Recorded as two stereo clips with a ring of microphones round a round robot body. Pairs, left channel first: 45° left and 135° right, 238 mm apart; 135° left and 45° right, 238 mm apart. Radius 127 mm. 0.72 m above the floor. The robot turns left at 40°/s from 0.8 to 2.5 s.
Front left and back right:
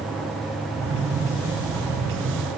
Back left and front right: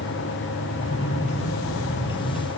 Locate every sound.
Only background noise.